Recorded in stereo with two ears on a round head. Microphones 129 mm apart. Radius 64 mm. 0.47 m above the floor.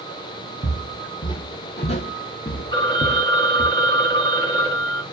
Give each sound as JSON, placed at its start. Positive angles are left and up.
{"t": 0.6, "sound": "footsteps", "side_deg": 20, "distance_m": 1.1}
{"t": 2.7, "sound": "a phone ringing", "side_deg": 30, "distance_m": 0.9}